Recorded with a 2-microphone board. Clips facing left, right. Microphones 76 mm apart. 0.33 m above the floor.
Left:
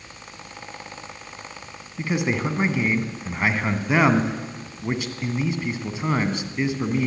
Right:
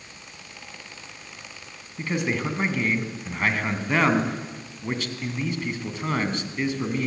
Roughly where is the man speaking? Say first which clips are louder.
Left 2 dB; centre.